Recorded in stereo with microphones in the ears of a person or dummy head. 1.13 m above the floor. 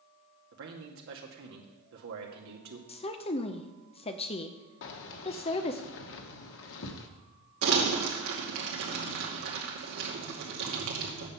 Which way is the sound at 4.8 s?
70° left (ahead or behind).